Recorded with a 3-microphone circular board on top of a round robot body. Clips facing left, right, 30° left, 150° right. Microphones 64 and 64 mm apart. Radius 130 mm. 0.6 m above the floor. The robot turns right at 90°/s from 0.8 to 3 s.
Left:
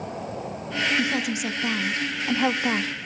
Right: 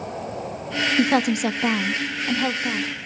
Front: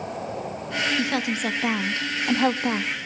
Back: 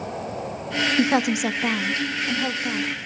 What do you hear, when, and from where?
1.0 s a woman speaking: 110° right, 0.9 m; by 2.9 s 65° left, 0.9 m